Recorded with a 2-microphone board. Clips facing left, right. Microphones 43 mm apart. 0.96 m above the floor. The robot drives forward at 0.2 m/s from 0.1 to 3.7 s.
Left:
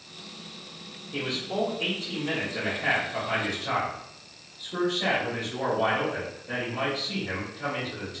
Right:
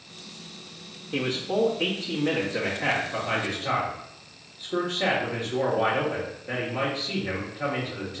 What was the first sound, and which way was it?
A man speaking, 50° right (ahead or behind).